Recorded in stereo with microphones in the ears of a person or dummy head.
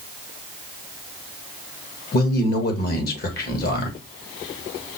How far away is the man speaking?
About 1.3 m.